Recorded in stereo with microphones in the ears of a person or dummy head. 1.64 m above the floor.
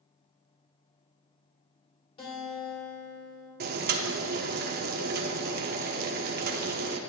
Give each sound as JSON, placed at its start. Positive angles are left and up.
{"t": 2.2, "sound": "a guitar", "side_deg": 30, "distance_m": 3.0}
{"t": 3.6, "sound": "boiling", "side_deg": -50, "distance_m": 0.7}